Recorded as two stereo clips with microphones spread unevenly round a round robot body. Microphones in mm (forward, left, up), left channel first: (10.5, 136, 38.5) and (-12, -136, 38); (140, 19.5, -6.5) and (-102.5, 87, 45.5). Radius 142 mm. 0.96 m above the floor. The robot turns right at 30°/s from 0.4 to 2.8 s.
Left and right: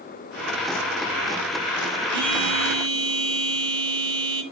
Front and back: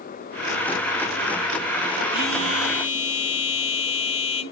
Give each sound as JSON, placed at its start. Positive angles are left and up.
{"t": 2.1, "sound": "a phone buzzing", "azimuth_deg": -95, "distance_m": 8.5}